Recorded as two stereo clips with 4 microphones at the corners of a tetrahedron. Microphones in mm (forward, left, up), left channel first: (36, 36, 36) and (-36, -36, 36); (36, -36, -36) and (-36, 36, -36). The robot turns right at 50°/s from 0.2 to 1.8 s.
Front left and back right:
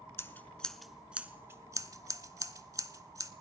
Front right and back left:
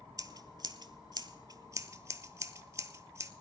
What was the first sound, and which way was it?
Scissors, 100° left.